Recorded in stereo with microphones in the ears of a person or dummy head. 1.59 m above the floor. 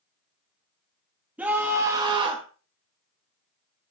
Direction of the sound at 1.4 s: 5° right (ahead or behind).